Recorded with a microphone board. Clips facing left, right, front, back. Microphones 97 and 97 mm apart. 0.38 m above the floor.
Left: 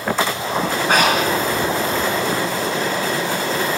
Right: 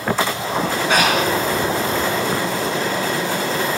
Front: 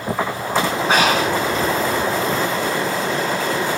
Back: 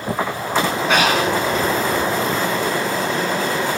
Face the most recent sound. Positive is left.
turn(degrees=50)